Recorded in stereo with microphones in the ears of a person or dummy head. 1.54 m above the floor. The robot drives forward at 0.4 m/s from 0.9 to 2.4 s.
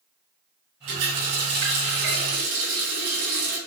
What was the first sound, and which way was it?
A running tap, 70° right (ahead or behind).